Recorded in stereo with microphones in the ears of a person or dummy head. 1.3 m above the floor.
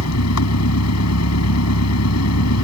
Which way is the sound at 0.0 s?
85° left.